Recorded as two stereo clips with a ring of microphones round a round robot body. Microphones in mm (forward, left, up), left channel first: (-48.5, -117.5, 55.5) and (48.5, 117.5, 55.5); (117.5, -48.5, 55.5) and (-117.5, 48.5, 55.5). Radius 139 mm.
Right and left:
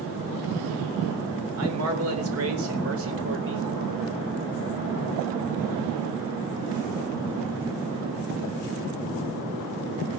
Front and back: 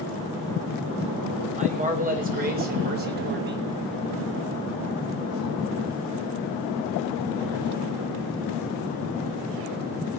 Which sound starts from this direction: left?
A man speaking, at 1.6 s.